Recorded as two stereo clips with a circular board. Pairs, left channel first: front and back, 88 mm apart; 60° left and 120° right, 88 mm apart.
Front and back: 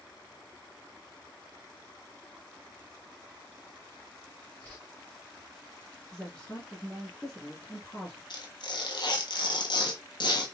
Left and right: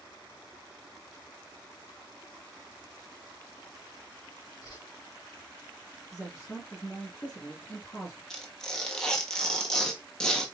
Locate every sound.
4.6 s a whoosh: 75° left, 2.5 m
6.1 s a woman speaking: 65° left, 1.7 m
8.3 s tearing paper: 20° right, 1.1 m